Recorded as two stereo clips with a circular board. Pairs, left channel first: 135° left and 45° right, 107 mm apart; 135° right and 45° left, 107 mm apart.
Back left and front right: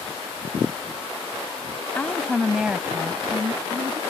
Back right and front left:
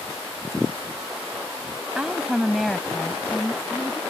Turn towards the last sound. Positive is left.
turn(degrees=-70)